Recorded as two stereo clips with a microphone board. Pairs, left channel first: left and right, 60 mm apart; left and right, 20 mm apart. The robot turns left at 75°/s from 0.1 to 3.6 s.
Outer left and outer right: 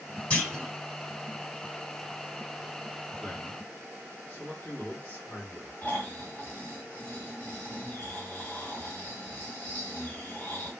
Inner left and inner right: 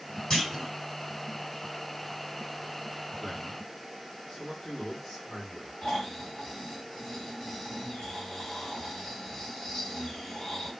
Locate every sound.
0.3 s a clunk: 20° left (ahead or behind), 1.9 m; by 0.7 s 5° right (ahead or behind), 1.9 m
3.2 s a man speaking: 170° left, 1.4 m; by 5.7 s 140° left, 1.4 m
5.8 s snoring: 35° left (ahead or behind), 2 m